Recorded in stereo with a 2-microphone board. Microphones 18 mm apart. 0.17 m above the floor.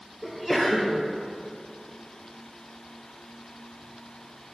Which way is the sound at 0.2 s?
5° left (ahead or behind).